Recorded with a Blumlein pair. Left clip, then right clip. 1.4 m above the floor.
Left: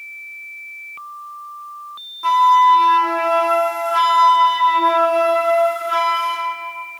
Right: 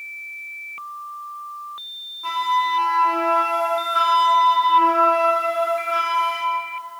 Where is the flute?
40° left, 1.3 m.